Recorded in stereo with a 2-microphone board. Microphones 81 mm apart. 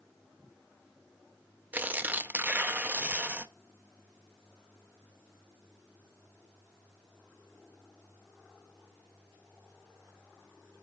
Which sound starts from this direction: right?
Tearing paper, at 1.7 s.